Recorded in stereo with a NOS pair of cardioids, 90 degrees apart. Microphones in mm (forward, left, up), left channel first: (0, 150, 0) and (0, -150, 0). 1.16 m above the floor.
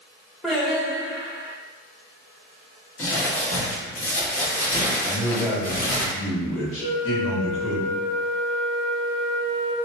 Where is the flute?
10° left, 1.6 m.